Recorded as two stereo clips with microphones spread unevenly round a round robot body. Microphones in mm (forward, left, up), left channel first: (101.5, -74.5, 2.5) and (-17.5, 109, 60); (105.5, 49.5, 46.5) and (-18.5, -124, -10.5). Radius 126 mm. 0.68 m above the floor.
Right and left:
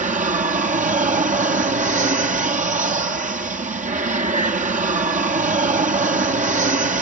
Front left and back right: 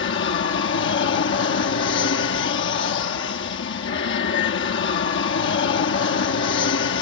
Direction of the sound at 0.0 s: 70° left.